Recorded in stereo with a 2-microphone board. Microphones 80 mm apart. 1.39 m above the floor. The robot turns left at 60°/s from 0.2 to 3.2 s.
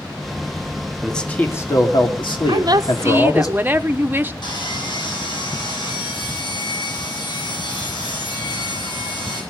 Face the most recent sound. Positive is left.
turn(degrees=65)  # may be behind; listen again after turning